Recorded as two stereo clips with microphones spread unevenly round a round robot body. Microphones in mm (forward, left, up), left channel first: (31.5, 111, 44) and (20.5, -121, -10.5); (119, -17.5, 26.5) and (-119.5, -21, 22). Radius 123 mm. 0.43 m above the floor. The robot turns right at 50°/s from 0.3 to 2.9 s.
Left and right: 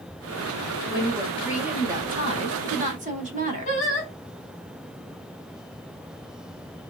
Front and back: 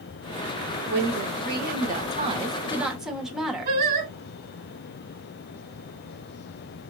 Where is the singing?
150° left, 1.3 m.